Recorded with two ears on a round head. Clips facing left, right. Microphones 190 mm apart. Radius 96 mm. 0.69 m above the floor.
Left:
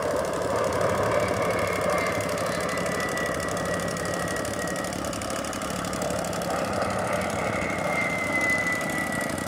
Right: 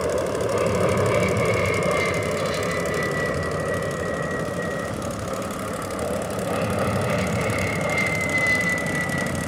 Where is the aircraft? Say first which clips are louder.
Right 3 dB; 40° right (ahead or behind); by 9.5 s 50° right (ahead or behind).